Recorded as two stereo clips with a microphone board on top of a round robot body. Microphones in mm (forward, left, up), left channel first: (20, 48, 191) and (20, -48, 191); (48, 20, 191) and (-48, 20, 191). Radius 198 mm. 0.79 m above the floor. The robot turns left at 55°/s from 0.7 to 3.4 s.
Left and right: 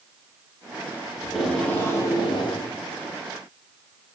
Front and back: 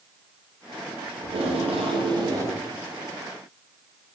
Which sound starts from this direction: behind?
Tape being pulled, at 1.2 s.